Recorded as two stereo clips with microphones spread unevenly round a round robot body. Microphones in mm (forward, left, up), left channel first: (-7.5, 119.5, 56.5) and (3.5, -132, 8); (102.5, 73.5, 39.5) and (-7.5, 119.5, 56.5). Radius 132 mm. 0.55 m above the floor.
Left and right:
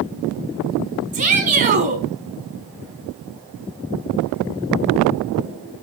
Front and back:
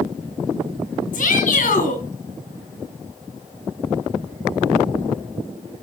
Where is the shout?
25° right, 4 m.